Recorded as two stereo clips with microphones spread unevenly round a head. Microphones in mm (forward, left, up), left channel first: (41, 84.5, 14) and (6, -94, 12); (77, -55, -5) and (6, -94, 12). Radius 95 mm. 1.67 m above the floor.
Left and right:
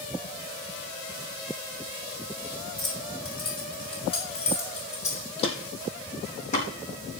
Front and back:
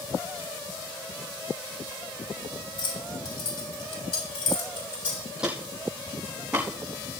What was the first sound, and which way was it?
Keys jangling, 10° left.